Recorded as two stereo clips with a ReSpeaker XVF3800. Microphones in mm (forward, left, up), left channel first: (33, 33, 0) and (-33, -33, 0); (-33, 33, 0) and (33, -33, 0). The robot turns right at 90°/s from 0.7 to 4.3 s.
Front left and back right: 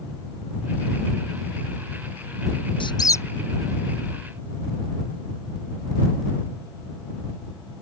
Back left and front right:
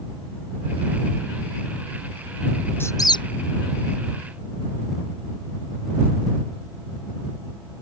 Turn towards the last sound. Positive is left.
turn(degrees=-155)